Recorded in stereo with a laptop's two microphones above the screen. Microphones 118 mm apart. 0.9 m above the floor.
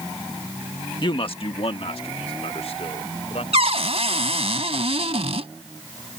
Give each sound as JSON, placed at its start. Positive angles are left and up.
{"t": 1.0, "sound": "a man speaking", "side_deg": 40}
{"t": 3.5, "sound": "a cupboard door", "side_deg": -60}